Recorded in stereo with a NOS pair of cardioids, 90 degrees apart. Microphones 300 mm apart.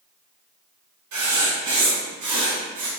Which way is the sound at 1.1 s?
70° right.